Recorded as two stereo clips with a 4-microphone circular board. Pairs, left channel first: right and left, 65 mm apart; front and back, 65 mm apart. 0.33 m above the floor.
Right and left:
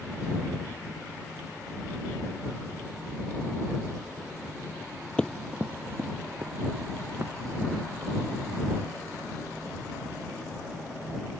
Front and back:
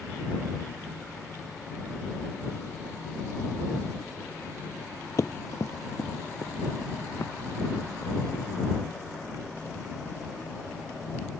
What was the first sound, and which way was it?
Running footsteps, 20° right.